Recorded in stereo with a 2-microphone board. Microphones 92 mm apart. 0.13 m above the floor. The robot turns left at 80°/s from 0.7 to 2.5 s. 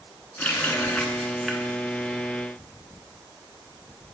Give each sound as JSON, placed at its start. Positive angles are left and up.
{"t": 0.4, "sound": "a running tap", "side_deg": 15, "distance_m": 1.0}